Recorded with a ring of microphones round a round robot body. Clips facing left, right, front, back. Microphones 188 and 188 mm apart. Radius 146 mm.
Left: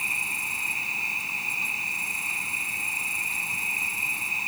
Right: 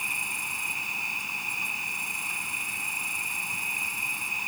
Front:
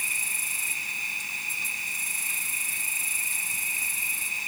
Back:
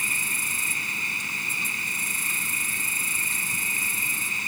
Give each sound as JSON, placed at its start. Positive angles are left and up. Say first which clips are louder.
{"t": 0.0, "sound": "an insect", "louder": "left 1 dB, back 7 dB", "azimuth_deg": 175}